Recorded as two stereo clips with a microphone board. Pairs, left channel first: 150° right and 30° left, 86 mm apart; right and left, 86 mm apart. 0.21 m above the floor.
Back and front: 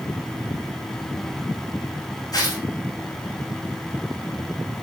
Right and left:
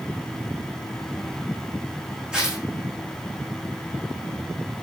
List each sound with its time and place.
2.3 s tearing paper: 170° left, 6.5 m